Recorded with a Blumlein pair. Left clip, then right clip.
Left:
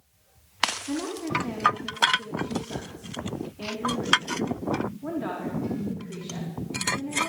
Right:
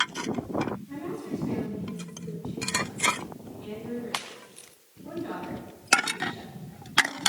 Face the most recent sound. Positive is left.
turn(degrees=40)